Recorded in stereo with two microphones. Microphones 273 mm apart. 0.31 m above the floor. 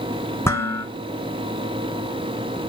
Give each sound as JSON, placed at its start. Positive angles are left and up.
{"t": 0.5, "sound": "dishes clattering", "side_deg": 10, "distance_m": 2.5}